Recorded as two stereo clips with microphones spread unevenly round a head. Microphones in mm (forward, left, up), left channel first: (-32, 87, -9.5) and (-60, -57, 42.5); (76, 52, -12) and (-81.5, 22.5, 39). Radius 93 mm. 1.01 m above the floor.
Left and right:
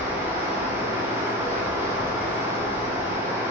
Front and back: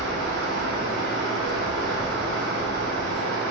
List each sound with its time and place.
0.0 s running water: 175° right, 0.7 m